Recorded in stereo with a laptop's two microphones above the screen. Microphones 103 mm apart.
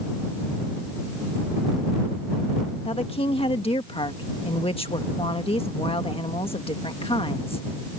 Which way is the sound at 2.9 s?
65° left (ahead or behind).